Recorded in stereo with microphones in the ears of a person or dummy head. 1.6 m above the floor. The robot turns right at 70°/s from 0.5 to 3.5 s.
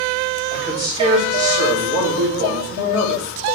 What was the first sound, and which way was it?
A man speaking, 175° right.